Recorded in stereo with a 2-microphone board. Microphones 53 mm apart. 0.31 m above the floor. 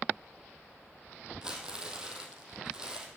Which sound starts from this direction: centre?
Crumpling, at 1.4 s.